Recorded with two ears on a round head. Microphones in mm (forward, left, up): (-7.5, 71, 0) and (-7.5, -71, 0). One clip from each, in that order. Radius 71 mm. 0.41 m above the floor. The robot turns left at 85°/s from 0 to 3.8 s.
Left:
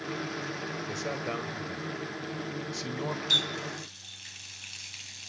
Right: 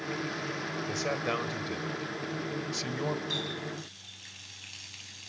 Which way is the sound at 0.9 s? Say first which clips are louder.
Right 4 dB; 5° right.